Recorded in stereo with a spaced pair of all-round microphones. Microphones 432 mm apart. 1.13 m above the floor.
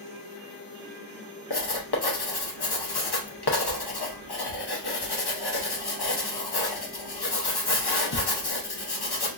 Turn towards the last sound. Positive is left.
turn(degrees=60)  # may be behind; listen again after turning